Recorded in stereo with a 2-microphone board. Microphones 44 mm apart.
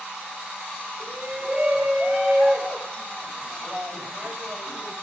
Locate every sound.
1.0 s a shout: 20° right (ahead or behind), 4.5 m; by 4.9 s 50° right (ahead or behind), 6 m